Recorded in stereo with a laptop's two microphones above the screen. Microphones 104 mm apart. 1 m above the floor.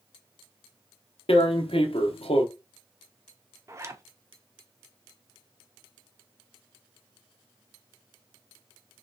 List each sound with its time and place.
1.3 s tearing paper: 75° left (ahead or behind), 1.0 m
3.7 s a zipper: 30° right (ahead or behind), 0.7 m